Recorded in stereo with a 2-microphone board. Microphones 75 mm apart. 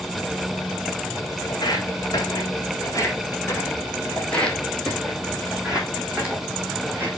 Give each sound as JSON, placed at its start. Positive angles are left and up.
{"t": 1.5, "sound": "footsteps", "side_deg": 60, "distance_m": 3.0}